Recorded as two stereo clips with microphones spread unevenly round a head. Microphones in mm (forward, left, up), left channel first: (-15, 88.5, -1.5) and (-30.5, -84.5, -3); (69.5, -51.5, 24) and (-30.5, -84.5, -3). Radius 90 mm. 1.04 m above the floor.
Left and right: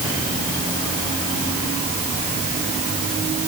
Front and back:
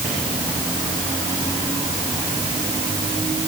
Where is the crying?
I don't hear crying.